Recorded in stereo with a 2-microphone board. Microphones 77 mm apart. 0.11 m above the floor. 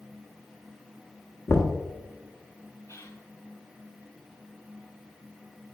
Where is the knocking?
30° left (ahead or behind), 1.0 m.